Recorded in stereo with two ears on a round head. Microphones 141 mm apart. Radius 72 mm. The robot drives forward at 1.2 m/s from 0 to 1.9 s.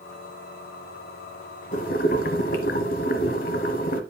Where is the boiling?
50° left (ahead or behind), 1.3 m; by 4.0 s 55° left (ahead or behind), 1.2 m.